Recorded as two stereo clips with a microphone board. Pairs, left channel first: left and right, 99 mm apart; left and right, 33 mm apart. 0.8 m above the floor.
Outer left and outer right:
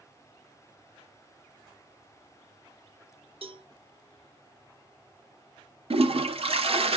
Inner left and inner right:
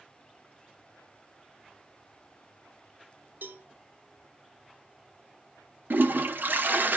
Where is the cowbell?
70° right (ahead or behind), 0.7 m.